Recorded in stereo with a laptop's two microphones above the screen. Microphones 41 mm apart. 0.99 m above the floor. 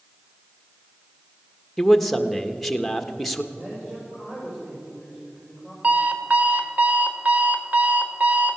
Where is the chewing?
No chewing in this recording.